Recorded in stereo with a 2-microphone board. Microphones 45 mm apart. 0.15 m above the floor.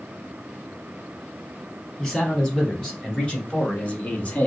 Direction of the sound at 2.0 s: 15° left (ahead or behind).